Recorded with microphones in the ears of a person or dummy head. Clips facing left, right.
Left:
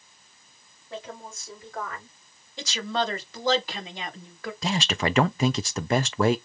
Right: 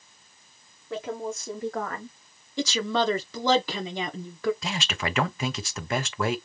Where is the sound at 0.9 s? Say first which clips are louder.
Right 7 dB; 55° right (ahead or behind), 2.5 m; by 2.2 s 25° right (ahead or behind), 0.9 m.